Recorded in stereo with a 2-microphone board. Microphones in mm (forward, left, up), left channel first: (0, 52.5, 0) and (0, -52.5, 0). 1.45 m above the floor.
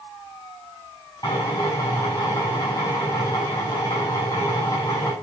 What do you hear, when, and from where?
1.2 s a drill: 40° left (ahead or behind), 8.5 m